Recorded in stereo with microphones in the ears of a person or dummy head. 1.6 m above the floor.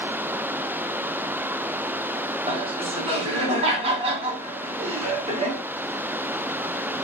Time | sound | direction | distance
2.5 | laughter | 35° right (ahead or behind) | 2.5 m